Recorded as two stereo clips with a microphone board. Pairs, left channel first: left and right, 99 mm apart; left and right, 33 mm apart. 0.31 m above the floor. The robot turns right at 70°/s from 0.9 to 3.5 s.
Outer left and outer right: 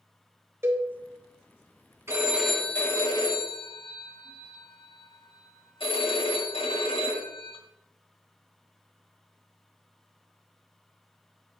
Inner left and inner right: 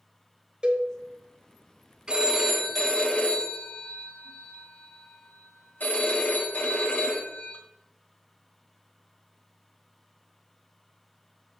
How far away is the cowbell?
About 1.2 m.